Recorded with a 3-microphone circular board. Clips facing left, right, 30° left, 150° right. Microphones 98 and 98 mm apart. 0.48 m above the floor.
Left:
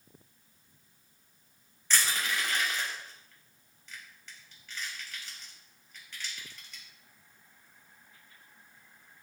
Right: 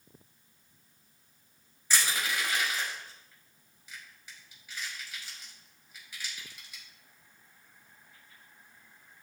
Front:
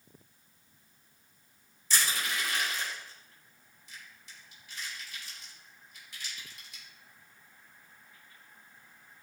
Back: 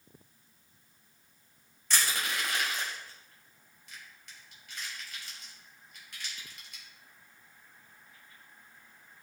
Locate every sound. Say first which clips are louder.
1.9 s crushing: even, even; 170° right, 3.5 m